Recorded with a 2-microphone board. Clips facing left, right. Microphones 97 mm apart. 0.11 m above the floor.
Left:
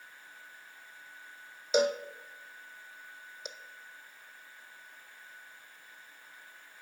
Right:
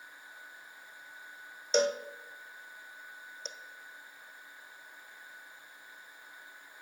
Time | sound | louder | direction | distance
1.7 | a cowbell | left 1 dB | 10° left (ahead or behind) | 0.8 m